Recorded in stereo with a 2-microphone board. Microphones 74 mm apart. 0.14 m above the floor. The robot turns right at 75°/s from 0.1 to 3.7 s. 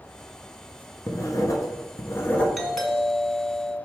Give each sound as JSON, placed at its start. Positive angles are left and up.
{"t": 1.1, "sound": "writing", "azimuth_deg": 50, "distance_m": 1.1}
{"t": 2.6, "sound": "a doorbell", "side_deg": 0, "distance_m": 1.6}